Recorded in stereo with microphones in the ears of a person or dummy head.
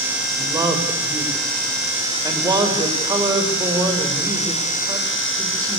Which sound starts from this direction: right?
A man speaking, at 0.4 s.